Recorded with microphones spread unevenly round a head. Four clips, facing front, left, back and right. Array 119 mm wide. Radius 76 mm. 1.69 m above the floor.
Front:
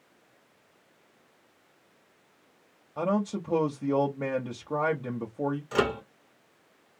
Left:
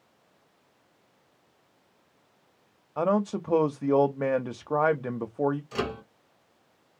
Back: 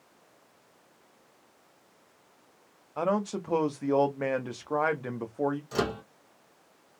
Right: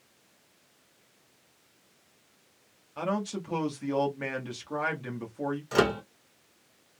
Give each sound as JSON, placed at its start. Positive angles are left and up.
{"t": 3.0, "sound": "a man speaking", "azimuth_deg": 125, "distance_m": 0.6}
{"t": 5.7, "sound": "a microwave", "azimuth_deg": -80, "distance_m": 0.7}